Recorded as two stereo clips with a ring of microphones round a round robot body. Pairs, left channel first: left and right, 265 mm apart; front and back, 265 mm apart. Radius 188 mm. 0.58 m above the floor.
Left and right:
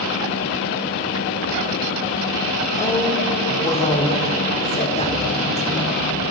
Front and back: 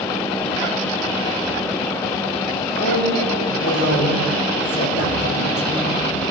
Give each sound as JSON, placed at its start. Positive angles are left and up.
{"t": 2.8, "sound": "a woman speaking", "azimuth_deg": 25, "distance_m": 1.4}